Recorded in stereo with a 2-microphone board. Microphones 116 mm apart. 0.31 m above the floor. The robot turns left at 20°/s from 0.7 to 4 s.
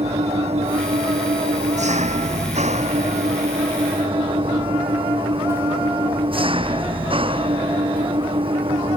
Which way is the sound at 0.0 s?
65° right.